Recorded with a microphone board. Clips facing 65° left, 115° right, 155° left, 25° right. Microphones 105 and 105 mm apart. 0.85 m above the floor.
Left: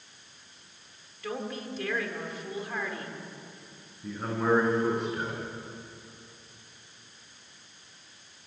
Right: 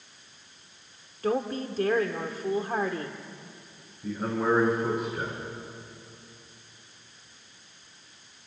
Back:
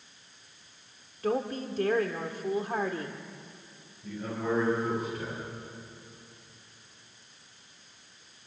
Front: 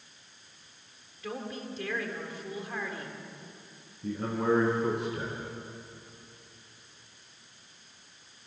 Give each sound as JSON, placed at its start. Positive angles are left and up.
{"t": 1.2, "sound": "a woman speaking", "azimuth_deg": -160, "distance_m": 2.0}
{"t": 4.0, "sound": "a man speaking", "azimuth_deg": -30, "distance_m": 9.5}